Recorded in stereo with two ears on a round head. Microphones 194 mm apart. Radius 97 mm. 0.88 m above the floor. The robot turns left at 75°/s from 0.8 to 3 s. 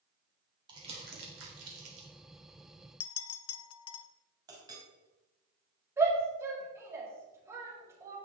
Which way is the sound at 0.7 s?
20° right (ahead or behind).